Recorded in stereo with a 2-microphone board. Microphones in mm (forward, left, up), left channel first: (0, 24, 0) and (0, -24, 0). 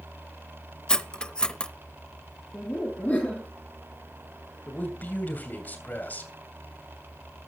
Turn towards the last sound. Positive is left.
turn(degrees=40)  # may be behind; listen again after turning